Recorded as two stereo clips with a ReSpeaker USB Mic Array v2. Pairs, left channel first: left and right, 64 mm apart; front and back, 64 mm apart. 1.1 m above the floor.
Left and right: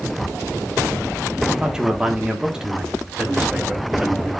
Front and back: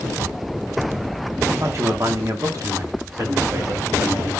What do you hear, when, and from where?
1.5 s a man speaking: 165° right, 1.0 m; by 4.3 s 170° right, 3 m